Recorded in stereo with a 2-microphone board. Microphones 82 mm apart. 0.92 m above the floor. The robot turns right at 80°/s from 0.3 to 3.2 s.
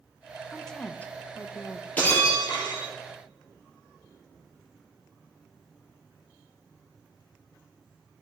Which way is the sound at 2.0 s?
20° left.